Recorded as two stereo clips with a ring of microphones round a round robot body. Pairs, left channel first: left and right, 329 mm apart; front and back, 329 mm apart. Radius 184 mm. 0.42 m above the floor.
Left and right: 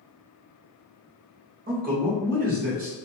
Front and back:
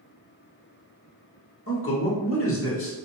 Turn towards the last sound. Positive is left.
turn(degrees=-35)